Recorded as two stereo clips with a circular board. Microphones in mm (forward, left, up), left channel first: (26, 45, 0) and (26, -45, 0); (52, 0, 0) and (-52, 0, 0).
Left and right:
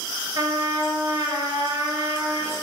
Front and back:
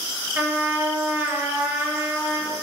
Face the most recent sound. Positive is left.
turn(degrees=-115)